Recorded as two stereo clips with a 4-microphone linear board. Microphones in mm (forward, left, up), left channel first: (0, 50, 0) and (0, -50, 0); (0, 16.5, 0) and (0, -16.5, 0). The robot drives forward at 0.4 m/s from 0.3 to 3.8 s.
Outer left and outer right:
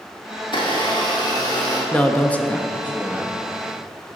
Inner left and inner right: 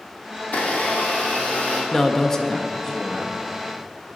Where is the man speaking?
15° left (ahead or behind), 0.5 m; by 3.4 s 10° left (ahead or behind), 0.6 m.